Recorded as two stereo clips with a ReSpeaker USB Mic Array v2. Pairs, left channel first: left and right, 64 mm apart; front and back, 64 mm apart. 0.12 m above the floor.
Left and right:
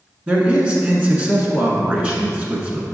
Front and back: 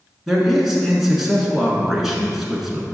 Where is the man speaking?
105° right, 1.1 m.